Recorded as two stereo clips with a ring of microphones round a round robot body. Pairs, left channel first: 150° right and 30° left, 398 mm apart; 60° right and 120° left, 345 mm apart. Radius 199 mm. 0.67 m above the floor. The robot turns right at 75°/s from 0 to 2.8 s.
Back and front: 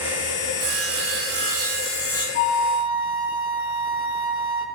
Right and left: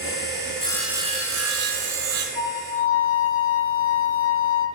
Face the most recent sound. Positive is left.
turn(degrees=-100)